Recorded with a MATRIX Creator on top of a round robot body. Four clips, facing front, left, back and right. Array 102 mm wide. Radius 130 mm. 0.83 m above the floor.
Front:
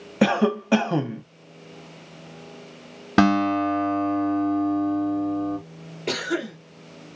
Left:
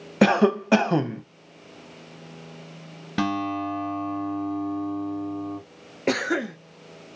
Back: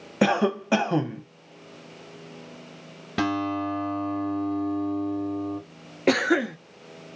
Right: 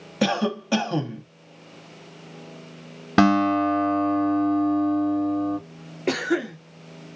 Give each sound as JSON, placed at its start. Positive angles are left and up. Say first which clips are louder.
{"t": 0.2, "sound": "a cough", "louder": "left 5 dB, front 2 dB", "azimuth_deg": 90, "distance_m": 0.7}
{"t": 3.2, "sound": "a guitar", "louder": "right 8 dB, front 7 dB", "azimuth_deg": -50, "distance_m": 0.5}
{"t": 6.1, "sound": "a cough", "louder": "right 1 dB, back 6 dB", "azimuth_deg": 160, "distance_m": 1.0}